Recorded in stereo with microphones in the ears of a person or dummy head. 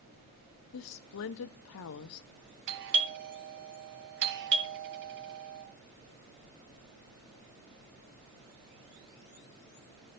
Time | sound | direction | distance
0.7 | a woman speaking | 60° left (ahead or behind) | 0.7 m
2.7 | a doorbell | 65° right (ahead or behind) | 2.5 m